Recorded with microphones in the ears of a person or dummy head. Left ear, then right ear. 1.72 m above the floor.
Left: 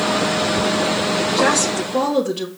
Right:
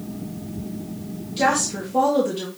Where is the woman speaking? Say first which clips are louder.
Even; 15° left (ahead or behind), 1.6 m.